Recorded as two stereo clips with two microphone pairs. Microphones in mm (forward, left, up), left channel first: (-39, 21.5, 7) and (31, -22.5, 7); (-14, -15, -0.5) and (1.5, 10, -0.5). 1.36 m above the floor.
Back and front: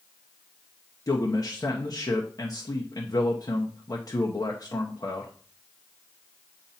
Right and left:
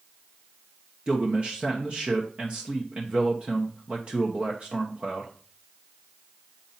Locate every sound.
1.1 s a man speaking: 105° left, 1.0 m